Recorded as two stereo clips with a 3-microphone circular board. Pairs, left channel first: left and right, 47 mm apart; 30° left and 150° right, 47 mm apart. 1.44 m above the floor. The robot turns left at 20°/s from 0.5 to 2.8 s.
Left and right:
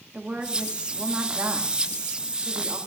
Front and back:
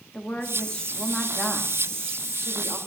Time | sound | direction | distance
0.1 | a woman speaking | 30° right | 3 m